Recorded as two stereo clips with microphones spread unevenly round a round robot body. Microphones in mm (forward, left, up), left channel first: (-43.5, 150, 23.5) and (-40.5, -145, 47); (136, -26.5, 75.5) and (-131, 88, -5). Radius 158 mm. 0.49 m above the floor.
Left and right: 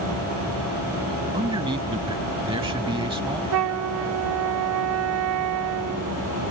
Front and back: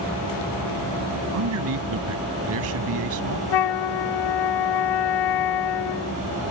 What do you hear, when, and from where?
1.3 s a man speaking: 165° right
3.5 s a flute: 45° right